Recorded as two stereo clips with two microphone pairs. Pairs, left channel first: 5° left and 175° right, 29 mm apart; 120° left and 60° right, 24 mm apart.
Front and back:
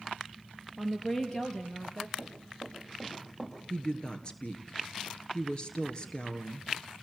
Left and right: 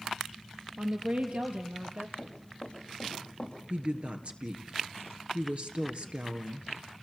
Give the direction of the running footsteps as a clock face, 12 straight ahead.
10 o'clock.